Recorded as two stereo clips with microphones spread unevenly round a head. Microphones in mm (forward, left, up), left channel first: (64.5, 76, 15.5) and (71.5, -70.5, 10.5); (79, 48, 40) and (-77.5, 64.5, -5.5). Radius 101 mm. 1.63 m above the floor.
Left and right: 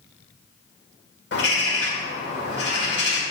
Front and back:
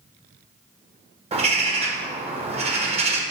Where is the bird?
120° left, 1.4 m.